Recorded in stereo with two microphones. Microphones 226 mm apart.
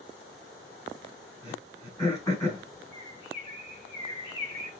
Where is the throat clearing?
15° left (ahead or behind), 7.5 m.